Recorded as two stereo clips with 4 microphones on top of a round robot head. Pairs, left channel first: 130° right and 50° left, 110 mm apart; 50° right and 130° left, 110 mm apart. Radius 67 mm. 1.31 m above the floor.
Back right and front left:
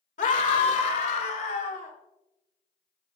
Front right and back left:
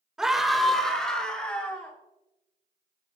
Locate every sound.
0.2 s a scream: 145° right, 1.9 m; by 1.9 s 125° right, 4.5 m